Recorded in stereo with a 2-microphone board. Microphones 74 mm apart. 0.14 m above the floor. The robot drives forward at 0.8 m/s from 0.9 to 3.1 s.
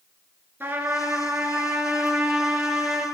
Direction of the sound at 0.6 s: 30° right (ahead or behind).